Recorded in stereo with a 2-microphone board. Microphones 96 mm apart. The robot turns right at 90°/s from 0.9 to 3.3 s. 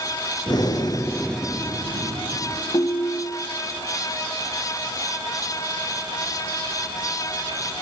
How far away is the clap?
No clap in this recording.